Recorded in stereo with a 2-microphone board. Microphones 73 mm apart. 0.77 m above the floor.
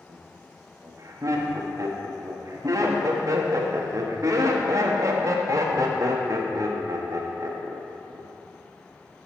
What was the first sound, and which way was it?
Laughter, 50° right (ahead or behind).